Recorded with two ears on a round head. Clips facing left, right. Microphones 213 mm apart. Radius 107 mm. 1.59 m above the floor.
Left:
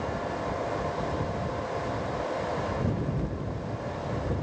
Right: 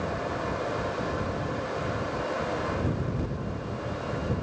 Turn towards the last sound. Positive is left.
No sound to turn to.